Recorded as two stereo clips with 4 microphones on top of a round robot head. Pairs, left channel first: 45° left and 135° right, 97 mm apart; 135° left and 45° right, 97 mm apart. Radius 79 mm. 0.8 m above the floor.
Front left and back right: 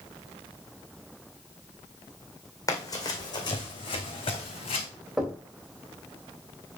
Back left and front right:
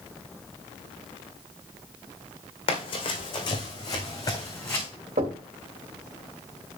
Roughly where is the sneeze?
I don't hear a sneeze.